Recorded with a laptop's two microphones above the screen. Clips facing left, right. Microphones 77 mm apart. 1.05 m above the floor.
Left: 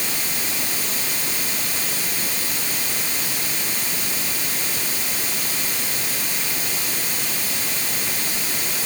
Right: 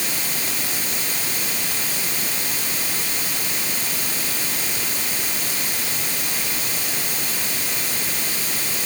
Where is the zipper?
I don't hear a zipper.